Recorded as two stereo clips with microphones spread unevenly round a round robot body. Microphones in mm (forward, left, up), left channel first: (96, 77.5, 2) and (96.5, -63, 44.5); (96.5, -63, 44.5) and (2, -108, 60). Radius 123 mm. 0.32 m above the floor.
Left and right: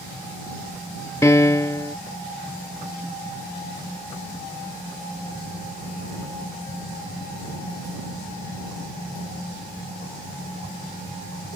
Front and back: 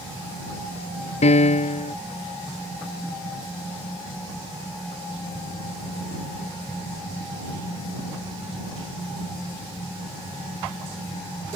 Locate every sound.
1.2 s a piano: 20° left